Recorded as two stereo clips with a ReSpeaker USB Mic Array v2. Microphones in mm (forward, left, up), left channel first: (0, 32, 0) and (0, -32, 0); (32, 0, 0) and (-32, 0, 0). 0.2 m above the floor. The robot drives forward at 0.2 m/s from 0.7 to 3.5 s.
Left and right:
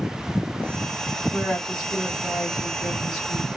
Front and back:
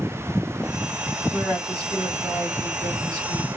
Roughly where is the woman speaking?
Behind.